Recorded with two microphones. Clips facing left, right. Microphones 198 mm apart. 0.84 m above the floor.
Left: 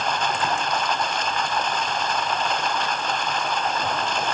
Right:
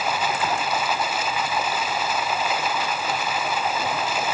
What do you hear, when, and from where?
0.0 s running water: 5° right (ahead or behind)